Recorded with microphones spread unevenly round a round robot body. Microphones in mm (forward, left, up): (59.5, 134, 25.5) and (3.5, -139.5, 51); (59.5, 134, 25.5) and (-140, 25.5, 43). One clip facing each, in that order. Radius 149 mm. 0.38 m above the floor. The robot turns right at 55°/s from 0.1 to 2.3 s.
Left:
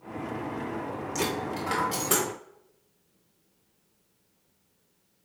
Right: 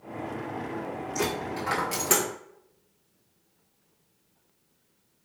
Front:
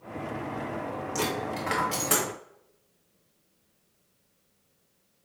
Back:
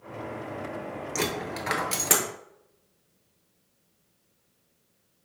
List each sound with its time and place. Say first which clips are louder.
1.1 s a dropped coin: right 1 dB, even; 145° left, 1.0 m; by 2.2 s 155° right, 1.0 m